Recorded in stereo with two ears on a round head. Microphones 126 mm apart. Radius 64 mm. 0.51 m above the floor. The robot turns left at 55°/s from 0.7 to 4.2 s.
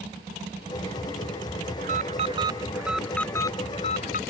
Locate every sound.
1.8 s an alarm: 110° right; by 4.2 s 115° left